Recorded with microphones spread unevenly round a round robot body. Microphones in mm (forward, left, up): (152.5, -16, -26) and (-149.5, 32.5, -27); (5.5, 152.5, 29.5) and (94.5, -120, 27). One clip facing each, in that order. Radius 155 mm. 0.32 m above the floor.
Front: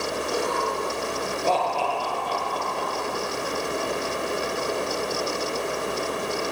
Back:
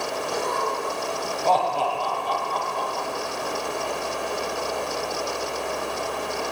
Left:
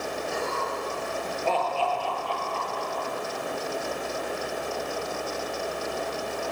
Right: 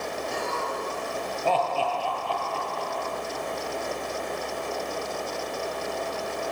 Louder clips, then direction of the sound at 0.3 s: Front 1 dB, even; 90° right.